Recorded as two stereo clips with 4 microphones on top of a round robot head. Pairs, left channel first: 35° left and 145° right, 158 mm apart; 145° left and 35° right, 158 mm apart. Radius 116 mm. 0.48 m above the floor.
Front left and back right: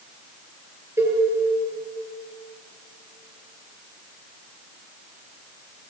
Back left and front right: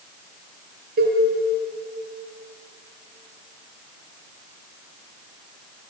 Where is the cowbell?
70° right, 7 m.